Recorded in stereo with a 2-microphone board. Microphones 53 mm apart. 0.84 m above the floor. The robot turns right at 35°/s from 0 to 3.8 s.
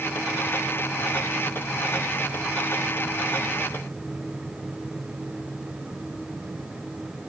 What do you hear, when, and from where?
Only background noise.